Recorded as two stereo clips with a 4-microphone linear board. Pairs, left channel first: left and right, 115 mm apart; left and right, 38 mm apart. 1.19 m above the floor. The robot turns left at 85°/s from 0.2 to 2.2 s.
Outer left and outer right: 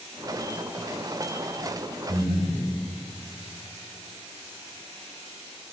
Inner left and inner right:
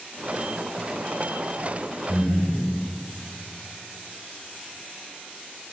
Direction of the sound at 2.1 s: 35° right (ahead or behind).